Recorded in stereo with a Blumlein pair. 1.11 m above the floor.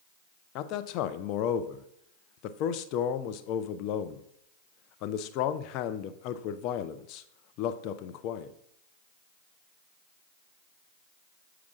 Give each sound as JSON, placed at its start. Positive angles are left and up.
{"t": 0.6, "sound": "a man speaking", "azimuth_deg": 40, "distance_m": 0.5}